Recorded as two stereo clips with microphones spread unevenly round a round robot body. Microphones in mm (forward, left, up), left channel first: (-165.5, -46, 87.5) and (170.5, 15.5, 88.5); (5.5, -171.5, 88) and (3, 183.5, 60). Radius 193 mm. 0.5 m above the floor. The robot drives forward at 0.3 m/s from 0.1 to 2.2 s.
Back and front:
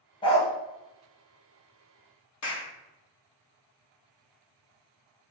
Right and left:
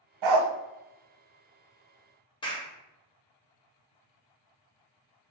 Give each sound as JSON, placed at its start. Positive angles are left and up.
{"t": 0.2, "sound": "a dog barking", "azimuth_deg": 115, "distance_m": 0.8}
{"t": 2.4, "sound": "a clap", "azimuth_deg": -165, "distance_m": 1.6}